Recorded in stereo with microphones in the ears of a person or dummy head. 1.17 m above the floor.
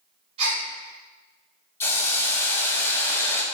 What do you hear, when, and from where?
0.4 s a gasp: 35° right (ahead or behind), 1.6 m
1.8 s a hiss: 15° left (ahead or behind), 0.5 m